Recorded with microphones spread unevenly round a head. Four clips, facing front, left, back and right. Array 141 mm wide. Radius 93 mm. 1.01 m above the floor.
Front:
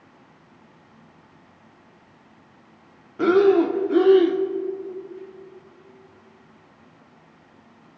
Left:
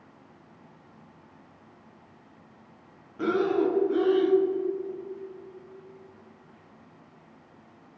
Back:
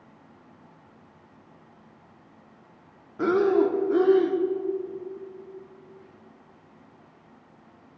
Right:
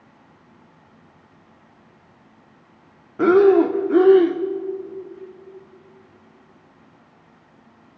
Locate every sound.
3.2 s breathing: 75° right, 1.2 m